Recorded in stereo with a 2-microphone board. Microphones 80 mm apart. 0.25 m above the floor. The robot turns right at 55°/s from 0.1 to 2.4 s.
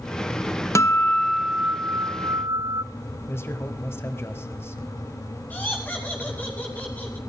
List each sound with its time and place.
0.8 s a guitar: 140° left, 0.6 m; by 2.8 s 130° right, 0.6 m
3.3 s a man speaking: 30° left (ahead or behind), 1.2 m
5.5 s laughter: 20° left (ahead or behind), 2.5 m